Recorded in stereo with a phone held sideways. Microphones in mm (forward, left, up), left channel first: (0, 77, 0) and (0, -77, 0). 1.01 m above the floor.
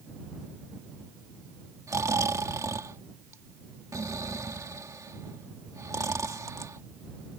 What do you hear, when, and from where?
1.9 s snoring: 20° right (ahead or behind)